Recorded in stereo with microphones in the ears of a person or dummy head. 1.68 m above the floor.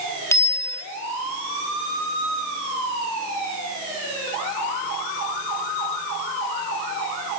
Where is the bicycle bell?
15° left (ahead or behind), 2.5 m.